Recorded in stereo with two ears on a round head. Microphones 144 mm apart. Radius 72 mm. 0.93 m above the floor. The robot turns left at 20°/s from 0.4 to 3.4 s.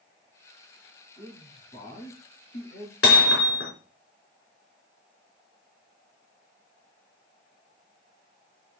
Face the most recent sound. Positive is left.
turn(degrees=75)  # may be behind; listen again after turning